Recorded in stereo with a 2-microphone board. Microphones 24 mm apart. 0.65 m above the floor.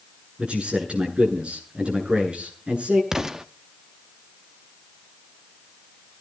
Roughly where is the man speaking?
Right.